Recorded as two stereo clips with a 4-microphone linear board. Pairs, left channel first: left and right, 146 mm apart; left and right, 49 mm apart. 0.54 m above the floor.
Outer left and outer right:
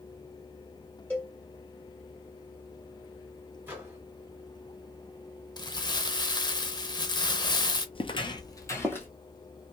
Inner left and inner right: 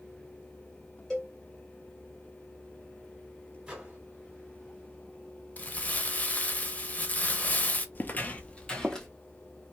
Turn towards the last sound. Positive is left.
turn(degrees=15)  # may be behind; listen again after turning